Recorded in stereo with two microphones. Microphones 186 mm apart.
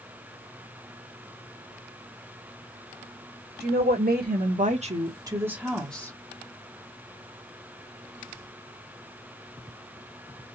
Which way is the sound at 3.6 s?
65° right (ahead or behind).